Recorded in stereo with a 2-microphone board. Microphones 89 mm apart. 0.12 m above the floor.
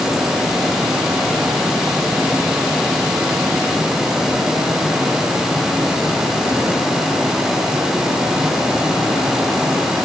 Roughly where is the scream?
I don't hear a scream.